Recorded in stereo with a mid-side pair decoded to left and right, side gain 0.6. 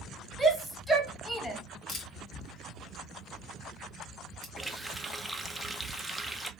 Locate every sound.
0.4 s a shout: 5° left, 1.2 m
1.9 s a camera shutter: 45° left, 1.2 m
4.6 s a running tap: 5° right, 0.5 m